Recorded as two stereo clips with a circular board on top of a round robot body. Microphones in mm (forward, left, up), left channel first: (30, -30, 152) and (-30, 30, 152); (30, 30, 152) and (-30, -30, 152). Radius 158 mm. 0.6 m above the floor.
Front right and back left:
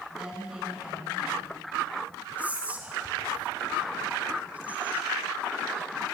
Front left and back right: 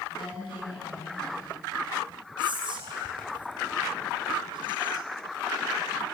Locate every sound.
0.1 s a woman speaking: 55° left, 7.5 m
2.4 s whispering: 155° right, 3.5 m